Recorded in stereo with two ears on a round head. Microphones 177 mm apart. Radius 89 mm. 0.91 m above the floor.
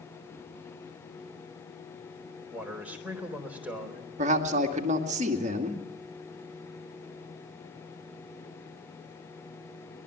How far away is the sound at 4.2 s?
About 2 m.